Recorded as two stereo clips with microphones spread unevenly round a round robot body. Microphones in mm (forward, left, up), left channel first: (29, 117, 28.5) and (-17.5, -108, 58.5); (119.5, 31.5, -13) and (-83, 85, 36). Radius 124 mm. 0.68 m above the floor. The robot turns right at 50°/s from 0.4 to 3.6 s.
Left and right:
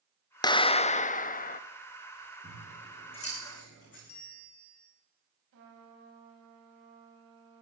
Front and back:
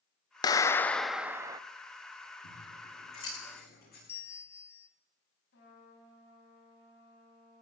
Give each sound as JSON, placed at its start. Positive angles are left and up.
{"t": 0.4, "sound": "a clap", "azimuth_deg": 25, "distance_m": 0.5}
{"t": 2.4, "sound": "scissors", "azimuth_deg": -25, "distance_m": 10.0}
{"t": 4.1, "sound": "a bell", "azimuth_deg": 65, "distance_m": 1.7}
{"t": 5.5, "sound": "a trumpet", "azimuth_deg": -65, "distance_m": 4.5}